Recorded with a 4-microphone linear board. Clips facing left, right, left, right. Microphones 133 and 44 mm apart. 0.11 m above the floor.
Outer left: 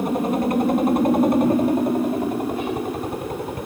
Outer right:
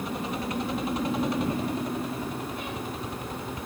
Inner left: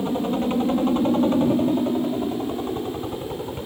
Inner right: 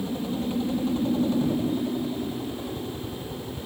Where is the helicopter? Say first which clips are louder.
Outer left 11 dB, inner left 6 dB; 50° left (ahead or behind).